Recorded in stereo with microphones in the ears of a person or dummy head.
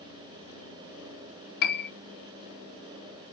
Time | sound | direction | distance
1.6 | a piano | 55° left (ahead or behind) | 1.0 m